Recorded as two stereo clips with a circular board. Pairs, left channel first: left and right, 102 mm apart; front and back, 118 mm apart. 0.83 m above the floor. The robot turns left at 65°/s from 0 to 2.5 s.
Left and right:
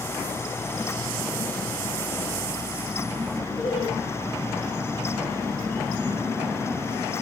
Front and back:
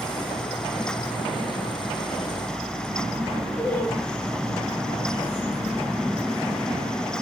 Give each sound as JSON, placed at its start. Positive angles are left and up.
{"t": 3.6, "sound": "laughter", "azimuth_deg": 70, "distance_m": 6.5}